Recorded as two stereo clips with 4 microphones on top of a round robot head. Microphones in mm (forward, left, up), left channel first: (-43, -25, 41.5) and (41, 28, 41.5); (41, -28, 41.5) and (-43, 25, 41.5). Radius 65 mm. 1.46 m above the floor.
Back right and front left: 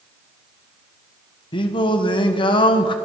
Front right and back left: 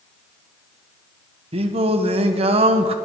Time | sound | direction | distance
1.5 | singing | 170° left | 1.4 m